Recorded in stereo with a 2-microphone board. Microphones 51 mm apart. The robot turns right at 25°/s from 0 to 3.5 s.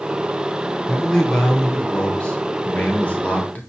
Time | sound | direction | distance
0.9 | a man speaking | 10° left (ahead or behind) | 0.9 m